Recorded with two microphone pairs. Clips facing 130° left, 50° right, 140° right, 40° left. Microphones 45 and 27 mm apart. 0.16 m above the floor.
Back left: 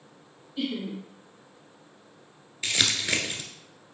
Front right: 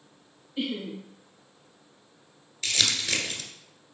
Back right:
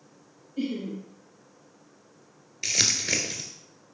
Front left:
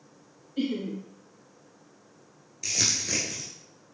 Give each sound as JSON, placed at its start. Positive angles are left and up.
{"t": 0.6, "sound": "laughter", "azimuth_deg": 15, "distance_m": 1.9}
{"t": 2.6, "sound": "crumpling", "azimuth_deg": -170, "distance_m": 1.4}